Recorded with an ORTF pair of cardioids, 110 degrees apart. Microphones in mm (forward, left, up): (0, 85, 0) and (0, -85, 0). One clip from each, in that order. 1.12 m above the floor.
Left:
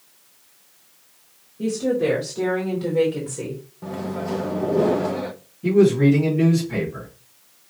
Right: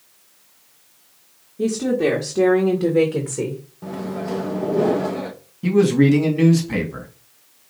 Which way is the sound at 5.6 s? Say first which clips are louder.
Even; 55° right.